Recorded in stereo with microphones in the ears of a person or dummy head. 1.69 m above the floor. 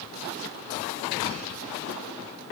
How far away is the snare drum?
I don't hear a snare drum.